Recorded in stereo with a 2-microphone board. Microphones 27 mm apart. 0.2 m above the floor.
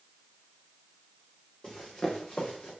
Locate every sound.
1.6 s running footsteps: 30° left (ahead or behind), 3 m; by 2.7 s 40° left (ahead or behind), 2.5 m